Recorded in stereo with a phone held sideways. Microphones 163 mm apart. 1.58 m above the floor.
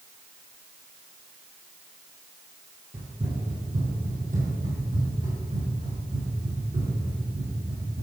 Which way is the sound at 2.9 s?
35° right (ahead or behind).